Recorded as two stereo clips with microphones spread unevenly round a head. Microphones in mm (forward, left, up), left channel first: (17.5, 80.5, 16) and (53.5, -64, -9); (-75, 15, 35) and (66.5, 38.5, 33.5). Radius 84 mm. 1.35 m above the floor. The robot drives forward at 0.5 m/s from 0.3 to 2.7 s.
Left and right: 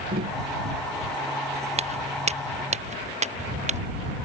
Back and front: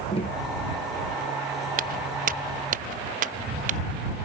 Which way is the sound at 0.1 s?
115° right.